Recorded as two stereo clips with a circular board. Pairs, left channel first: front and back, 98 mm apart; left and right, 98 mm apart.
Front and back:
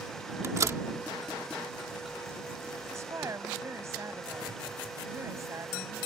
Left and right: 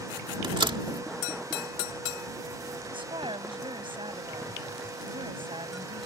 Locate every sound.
0.4 s a door slam: 125° right
2.9 s a woman speaking: 120° right